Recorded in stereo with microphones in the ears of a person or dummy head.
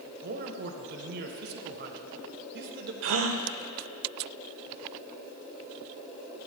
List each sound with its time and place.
0.2 s a man speaking: 60° right (ahead or behind), 1.1 m
3.0 s a gasp: 70° right (ahead or behind), 0.9 m